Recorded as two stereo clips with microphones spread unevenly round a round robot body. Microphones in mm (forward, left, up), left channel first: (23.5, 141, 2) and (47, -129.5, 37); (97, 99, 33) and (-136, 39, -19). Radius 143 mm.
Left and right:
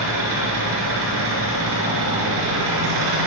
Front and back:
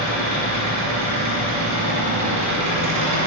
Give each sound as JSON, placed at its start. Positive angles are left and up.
{"t": 0.0, "sound": "an engine running", "azimuth_deg": -135, "distance_m": 4.0}